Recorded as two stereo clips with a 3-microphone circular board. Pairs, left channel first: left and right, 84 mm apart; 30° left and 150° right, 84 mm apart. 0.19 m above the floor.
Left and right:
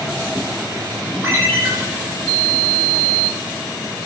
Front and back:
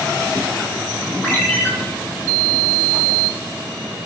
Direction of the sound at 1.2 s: 35° right.